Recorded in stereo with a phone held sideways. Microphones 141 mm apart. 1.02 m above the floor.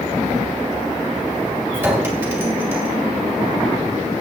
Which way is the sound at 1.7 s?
15° right (ahead or behind).